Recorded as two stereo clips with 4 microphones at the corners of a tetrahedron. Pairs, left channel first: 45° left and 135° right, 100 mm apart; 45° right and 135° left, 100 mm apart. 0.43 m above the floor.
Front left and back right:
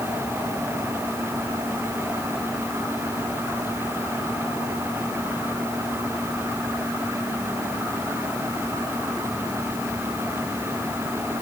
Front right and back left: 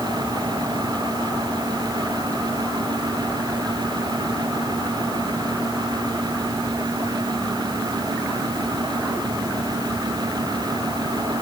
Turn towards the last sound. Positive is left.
No sound to turn to.